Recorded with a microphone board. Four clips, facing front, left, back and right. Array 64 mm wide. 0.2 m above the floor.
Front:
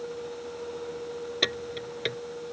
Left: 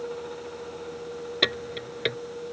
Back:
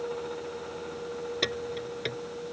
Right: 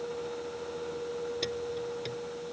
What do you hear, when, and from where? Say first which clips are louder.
1.4 s keys jangling: left 4 dB, front 2 dB; 80° left